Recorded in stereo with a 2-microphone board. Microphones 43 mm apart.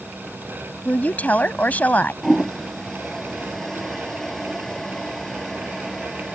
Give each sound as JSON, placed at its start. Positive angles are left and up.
{"t": 0.8, "sound": "a woman speaking", "side_deg": 40}
{"t": 2.2, "sound": "a toilet flushing", "side_deg": 5}